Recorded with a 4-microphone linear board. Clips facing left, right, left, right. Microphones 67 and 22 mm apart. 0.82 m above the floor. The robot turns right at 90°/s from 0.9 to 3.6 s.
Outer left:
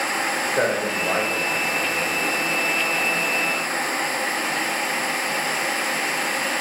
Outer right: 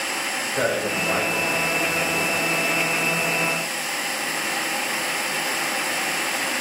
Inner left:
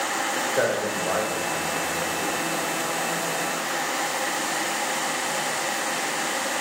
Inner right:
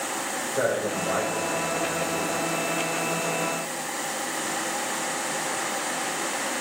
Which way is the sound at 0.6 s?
35° left (ahead or behind).